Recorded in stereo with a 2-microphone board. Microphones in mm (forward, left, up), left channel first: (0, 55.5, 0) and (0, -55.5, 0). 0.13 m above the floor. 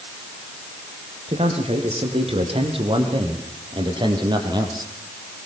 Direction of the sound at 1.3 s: 65° right (ahead or behind).